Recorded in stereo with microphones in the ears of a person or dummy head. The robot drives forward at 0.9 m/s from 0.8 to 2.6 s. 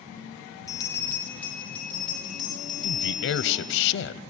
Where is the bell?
15° left (ahead or behind), 0.6 m; by 3.8 s 5° left (ahead or behind), 2 m.